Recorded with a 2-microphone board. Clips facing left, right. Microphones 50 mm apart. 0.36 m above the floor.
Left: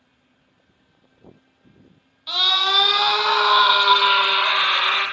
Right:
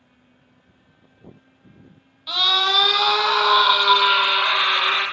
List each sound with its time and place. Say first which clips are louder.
2.3 s a scream: right 1 dB; centre (ahead or behind), 1.1 m; by 5.0 s 15° left (ahead or behind), 1.2 m